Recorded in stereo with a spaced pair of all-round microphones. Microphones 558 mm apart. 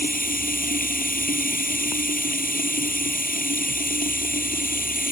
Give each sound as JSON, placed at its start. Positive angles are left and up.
{"t": 0.0, "sound": "running water", "side_deg": 15}